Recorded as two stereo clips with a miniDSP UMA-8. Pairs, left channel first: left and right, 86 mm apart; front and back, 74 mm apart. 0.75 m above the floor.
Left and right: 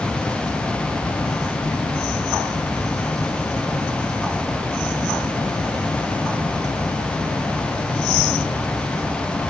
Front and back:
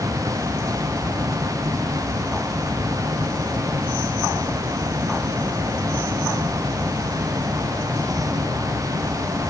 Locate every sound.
Only background noise.